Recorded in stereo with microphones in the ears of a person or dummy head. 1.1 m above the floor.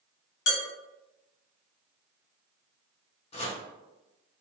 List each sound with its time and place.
0.5 s dishes clattering: 80° left, 1.1 m
3.3 s chopping: 30° left (ahead or behind), 0.7 m